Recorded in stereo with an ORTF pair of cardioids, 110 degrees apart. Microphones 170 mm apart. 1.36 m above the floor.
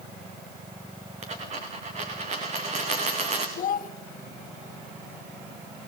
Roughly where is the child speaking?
Ahead left.